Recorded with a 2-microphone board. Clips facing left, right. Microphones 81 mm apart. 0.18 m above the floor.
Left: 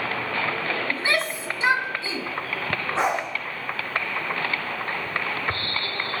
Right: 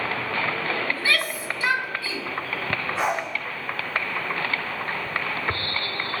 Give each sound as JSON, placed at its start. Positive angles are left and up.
{"t": 0.9, "sound": "a shout", "side_deg": 25, "distance_m": 1.3}
{"t": 3.0, "sound": "a dog barking", "side_deg": 30, "distance_m": 6.5}